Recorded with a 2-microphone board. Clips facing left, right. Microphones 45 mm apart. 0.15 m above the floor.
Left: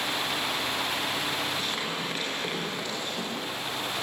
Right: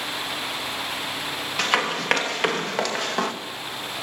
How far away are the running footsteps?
About 3.5 m.